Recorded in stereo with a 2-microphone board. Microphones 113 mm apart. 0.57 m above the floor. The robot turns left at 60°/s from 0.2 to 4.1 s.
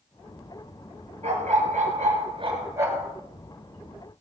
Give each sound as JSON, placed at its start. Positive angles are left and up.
{"t": 1.2, "sound": "a dog barking", "azimuth_deg": -65, "distance_m": 3.5}